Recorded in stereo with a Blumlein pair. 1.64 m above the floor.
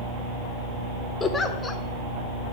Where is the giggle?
15° left, 0.8 m.